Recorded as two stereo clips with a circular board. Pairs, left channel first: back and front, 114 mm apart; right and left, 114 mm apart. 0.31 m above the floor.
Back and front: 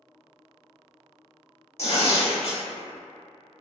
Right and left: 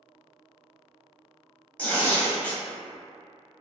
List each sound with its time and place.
1.8 s tearing paper: 165° right, 0.7 m